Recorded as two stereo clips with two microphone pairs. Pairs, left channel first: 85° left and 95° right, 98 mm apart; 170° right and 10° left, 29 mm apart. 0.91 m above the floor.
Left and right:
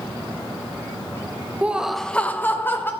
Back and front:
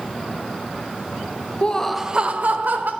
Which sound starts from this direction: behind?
Laughter, at 1.6 s.